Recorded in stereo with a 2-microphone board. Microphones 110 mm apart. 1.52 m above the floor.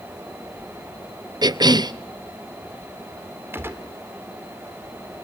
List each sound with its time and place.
1.4 s a cough: 40° right (ahead or behind), 0.8 m
3.5 s a gunshot: 20° right (ahead or behind), 1.9 m